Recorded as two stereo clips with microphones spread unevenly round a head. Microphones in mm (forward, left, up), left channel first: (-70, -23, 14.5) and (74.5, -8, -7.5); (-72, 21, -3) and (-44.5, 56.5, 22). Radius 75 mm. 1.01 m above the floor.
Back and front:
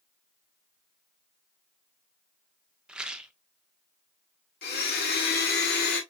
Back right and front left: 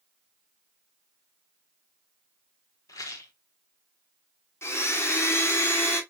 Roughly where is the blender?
Behind right.